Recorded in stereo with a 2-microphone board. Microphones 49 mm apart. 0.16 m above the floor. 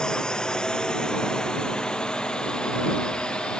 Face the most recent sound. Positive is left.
turn(degrees=20)  # may be behind; listen again after turning